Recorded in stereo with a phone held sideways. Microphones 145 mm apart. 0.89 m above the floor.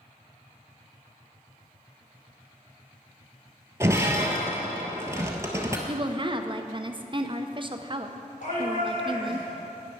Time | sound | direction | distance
3.8 | breaking glass | 20° right (ahead or behind) | 1.1 m
5.9 | a woman speaking | 35° right (ahead or behind) | 0.6 m
8.4 | a shout | 60° left (ahead or behind) | 3.5 m